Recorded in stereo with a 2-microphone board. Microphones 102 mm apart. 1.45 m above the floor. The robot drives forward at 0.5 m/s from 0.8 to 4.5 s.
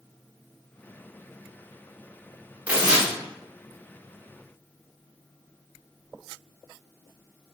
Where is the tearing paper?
15° right (ahead or behind), 1.0 m; by 3.1 s 10° right (ahead or behind), 1.2 m.